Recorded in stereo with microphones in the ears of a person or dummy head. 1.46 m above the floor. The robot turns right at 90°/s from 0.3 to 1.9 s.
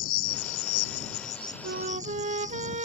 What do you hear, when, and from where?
0.0 s an insect: 50° left; by 2.9 s 165° right
1.6 s a flute: 55° right (ahead or behind); by 2.9 s 35° right (ahead or behind)